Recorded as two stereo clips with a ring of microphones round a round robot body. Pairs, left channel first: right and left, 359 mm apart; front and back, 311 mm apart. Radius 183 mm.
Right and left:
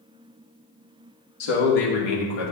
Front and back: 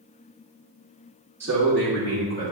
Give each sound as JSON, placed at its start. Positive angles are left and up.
{"t": 1.4, "sound": "a man speaking", "azimuth_deg": -95, "distance_m": 1.8}